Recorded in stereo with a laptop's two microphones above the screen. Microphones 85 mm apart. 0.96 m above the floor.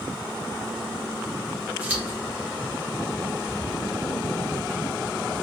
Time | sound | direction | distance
1.8 | scissors | 20° right (ahead or behind) | 0.9 m